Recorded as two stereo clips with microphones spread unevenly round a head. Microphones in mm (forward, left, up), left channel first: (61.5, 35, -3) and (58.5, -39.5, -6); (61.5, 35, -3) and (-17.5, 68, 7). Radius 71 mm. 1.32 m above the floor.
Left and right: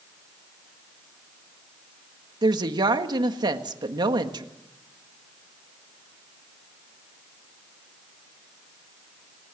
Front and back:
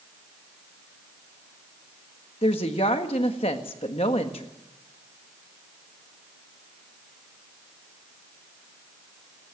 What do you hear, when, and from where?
2.4 s a woman speaking: 70° right, 1.5 m